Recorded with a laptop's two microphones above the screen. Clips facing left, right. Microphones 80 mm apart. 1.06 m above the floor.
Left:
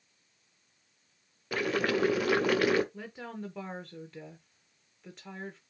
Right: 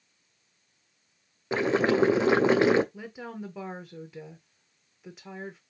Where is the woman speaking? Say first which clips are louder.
Right 2 dB; 5° right (ahead or behind), 0.6 m.